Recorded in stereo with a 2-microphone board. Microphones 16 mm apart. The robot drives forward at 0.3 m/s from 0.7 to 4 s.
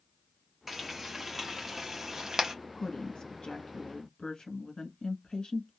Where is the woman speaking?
80° left, 1.1 m; by 5.7 s 60° left (ahead or behind), 1.2 m.